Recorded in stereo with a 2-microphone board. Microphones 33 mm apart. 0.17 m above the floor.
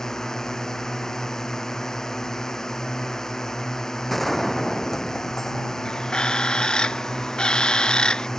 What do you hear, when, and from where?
0.0 s a drone: 15° left (ahead or behind)
4.1 s a gunshot: 5° left (ahead or behind)
5.8 s a bird: 30° left (ahead or behind)